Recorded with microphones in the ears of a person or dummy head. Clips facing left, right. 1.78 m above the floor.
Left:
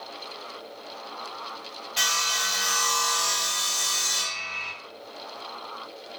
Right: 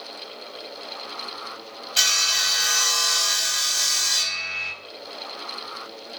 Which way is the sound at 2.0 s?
40° right (ahead or behind).